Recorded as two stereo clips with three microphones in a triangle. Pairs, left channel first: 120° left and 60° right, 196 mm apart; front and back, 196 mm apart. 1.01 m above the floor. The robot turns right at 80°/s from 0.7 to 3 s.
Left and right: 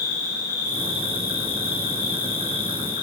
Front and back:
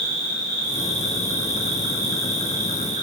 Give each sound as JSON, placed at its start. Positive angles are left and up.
{"t": 0.0, "sound": "an insect", "azimuth_deg": -175, "distance_m": 1.4}